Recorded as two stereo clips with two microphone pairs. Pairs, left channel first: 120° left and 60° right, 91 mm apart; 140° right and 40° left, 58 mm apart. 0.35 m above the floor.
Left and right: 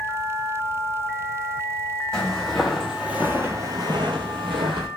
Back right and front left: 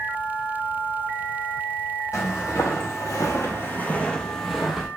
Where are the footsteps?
160° right, 1.0 m; by 4.9 s 45° right, 0.9 m.